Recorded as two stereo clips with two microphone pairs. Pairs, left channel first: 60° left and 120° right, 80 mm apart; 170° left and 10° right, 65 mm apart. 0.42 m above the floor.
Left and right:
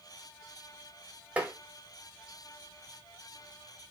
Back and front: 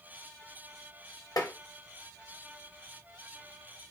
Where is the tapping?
165° left, 0.7 m.